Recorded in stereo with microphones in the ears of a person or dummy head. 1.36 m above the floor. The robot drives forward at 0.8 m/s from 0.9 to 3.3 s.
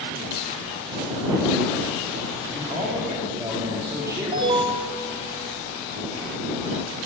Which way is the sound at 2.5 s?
15° right (ahead or behind).